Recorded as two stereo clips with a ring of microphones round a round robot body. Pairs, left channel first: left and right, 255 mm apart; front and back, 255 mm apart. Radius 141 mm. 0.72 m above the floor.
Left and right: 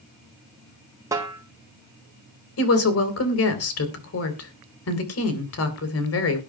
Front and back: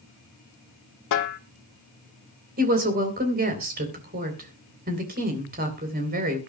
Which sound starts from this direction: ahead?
A snare drum, at 1.1 s.